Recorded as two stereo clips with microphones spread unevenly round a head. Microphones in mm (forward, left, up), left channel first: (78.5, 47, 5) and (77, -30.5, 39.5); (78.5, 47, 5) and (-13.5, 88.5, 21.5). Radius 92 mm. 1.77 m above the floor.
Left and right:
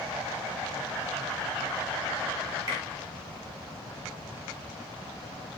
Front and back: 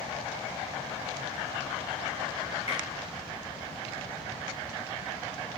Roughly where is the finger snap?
Right.